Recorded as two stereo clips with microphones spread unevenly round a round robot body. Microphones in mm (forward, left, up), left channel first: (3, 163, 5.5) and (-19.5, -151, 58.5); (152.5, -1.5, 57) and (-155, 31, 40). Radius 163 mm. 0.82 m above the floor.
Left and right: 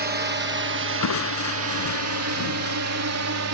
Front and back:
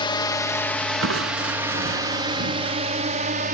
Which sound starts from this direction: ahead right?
A drone, at 0.0 s.